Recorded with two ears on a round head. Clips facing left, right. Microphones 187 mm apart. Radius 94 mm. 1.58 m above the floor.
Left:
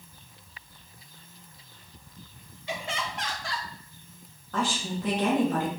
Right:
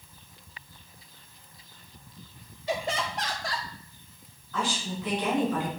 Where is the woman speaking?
40° left (ahead or behind), 3.5 m.